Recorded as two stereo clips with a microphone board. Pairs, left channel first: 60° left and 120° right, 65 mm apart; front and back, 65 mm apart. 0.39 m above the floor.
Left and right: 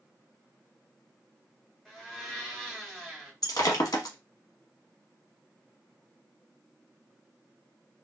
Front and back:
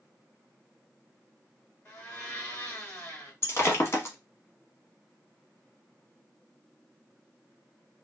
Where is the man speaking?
I don't hear a man speaking.